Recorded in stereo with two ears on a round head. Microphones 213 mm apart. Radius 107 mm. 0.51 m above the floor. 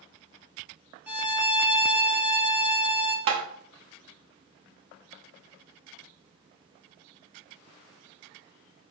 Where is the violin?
5° right (ahead or behind), 0.9 m.